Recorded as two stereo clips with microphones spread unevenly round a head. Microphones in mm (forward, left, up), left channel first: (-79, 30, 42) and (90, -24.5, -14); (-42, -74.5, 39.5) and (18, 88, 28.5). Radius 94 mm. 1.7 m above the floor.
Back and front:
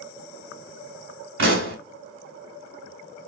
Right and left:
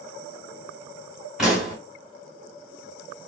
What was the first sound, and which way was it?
A pop, 25° right.